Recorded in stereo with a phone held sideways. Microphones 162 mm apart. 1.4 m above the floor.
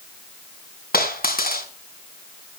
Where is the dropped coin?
70° left (ahead or behind), 3.5 m.